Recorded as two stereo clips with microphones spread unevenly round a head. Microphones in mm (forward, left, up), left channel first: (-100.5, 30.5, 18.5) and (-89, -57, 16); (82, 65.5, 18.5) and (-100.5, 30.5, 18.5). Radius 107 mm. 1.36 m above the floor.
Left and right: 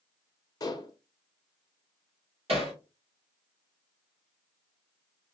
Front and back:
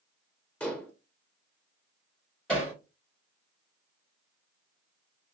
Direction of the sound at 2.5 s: 75° right.